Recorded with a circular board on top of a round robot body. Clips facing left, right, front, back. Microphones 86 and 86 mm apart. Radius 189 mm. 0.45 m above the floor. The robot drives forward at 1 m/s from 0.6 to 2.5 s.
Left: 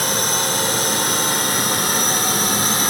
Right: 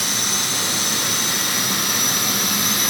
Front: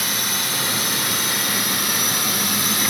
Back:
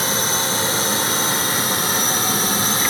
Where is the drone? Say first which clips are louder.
Left 5 dB, back 5 dB; 125° left; by 2.9 s 130° left.